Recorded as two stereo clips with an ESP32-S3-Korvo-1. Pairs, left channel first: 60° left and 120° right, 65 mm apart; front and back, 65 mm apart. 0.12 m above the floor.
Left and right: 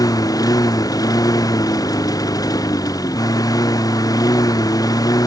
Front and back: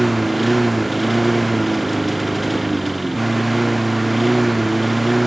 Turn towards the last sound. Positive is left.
turn(degrees=90)